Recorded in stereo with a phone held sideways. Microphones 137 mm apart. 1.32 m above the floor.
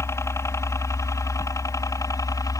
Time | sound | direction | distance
0.0 | a helicopter | 20° left (ahead or behind) | ?